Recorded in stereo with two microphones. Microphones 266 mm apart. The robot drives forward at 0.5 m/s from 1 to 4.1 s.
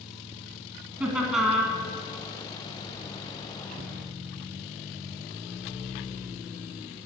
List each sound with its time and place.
1.0 s laughter: centre (ahead or behind), 1.5 m